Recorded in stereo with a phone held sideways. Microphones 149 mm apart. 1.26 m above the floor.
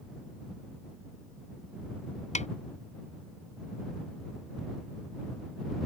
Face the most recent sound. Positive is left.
turn(degrees=50)  # may be behind; listen again after turning